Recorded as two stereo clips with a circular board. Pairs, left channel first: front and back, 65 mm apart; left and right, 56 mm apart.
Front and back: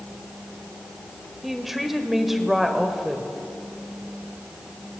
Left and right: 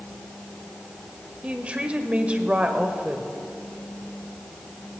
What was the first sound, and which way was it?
A woman speaking, 105° right.